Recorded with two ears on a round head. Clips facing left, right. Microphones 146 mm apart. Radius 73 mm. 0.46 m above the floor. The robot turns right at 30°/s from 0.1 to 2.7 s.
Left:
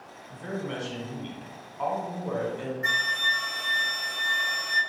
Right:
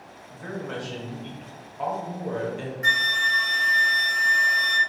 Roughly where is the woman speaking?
Behind left.